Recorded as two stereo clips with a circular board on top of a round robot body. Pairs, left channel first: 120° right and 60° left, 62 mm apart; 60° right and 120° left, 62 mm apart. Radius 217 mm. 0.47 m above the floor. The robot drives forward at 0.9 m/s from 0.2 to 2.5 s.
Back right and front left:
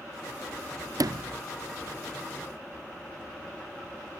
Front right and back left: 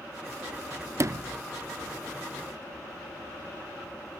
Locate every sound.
1.0 s a sliding door: 75° left; by 1.4 s 110° left